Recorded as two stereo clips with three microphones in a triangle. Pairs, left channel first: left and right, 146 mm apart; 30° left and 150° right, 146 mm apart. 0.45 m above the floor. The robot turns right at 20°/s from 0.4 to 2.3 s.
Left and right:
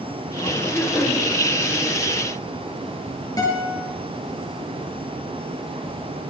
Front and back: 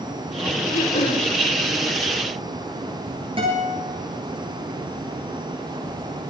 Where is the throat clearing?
15° left, 7 m; by 1.2 s 30° left, 7 m.